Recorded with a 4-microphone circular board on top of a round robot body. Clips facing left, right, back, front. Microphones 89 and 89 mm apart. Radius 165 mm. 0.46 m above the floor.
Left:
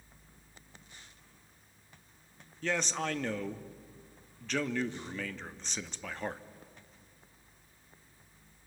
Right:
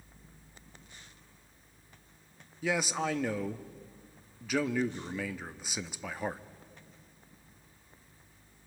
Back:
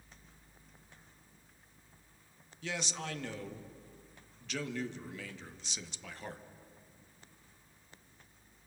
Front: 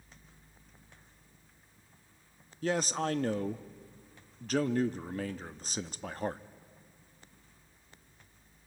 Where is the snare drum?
No snare drum in this recording.